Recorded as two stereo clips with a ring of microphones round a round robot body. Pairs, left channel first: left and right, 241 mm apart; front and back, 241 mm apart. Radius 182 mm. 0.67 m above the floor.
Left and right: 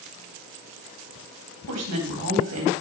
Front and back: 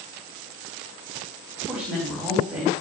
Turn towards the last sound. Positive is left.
turn(degrees=-95)